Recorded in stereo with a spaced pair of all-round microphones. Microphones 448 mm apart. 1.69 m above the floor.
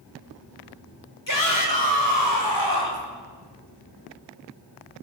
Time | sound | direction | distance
1.3 | a shout | 45° left (ahead or behind) | 5.5 m